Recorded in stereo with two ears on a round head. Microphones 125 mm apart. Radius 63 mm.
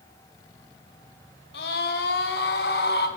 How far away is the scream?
About 6 m.